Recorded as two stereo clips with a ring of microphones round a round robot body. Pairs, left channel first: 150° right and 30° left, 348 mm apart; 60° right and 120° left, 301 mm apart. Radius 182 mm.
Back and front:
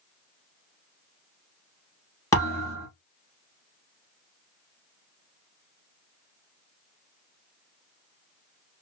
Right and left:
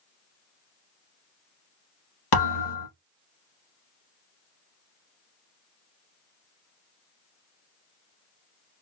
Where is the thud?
70° right, 1.9 m.